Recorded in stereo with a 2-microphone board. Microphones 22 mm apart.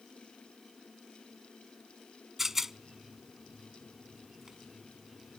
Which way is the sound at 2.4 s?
15° right (ahead or behind).